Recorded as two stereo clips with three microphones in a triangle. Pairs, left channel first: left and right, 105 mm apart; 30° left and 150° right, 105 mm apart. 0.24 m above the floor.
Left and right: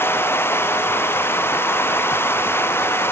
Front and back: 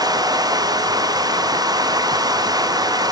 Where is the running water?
160° left.